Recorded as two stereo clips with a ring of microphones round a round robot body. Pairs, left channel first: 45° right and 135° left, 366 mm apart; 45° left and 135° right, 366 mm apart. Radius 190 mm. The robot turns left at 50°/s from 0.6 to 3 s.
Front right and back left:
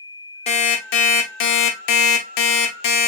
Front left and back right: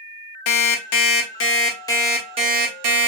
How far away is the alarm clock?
About 0.6 m.